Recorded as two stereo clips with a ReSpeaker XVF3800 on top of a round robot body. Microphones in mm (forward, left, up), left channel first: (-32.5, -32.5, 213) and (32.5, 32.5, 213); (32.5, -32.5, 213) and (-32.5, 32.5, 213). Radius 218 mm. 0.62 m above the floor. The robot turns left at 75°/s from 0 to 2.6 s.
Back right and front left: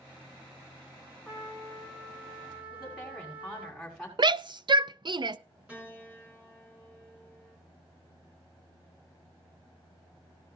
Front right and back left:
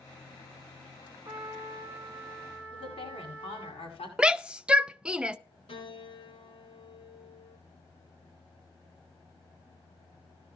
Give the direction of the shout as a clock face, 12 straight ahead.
10 o'clock.